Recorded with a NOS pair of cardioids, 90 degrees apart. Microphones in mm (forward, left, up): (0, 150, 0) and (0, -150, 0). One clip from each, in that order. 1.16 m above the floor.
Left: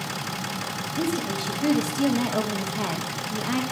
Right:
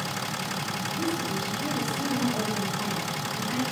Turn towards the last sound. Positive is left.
turn(degrees=65)